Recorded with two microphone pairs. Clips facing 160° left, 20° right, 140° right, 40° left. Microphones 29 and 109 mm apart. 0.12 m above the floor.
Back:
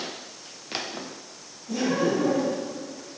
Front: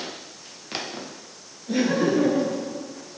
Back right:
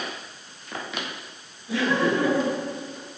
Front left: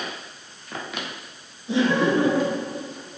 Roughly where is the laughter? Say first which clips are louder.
Front 3 dB, front left 3 dB; ahead.